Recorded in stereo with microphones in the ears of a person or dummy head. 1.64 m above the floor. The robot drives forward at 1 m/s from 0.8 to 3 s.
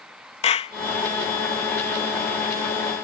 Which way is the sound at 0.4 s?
35° left (ahead or behind).